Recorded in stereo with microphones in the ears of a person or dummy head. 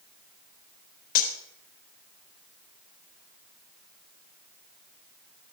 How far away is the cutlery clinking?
About 4 m.